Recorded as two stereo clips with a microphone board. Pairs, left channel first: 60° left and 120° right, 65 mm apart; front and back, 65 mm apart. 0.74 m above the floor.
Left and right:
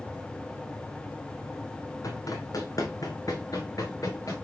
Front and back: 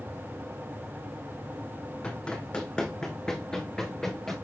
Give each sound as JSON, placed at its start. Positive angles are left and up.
{"t": 2.0, "sound": "running footsteps", "azimuth_deg": 70, "distance_m": 1.6}